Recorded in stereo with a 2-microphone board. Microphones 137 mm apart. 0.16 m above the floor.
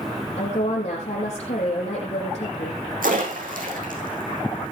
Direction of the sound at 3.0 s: 85° right.